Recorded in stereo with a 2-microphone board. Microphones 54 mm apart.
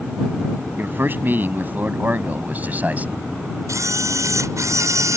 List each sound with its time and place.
0.8 s a man speaking: 40° right (ahead or behind); by 3.2 s 30° right (ahead or behind)
3.7 s a camera shutter: 80° right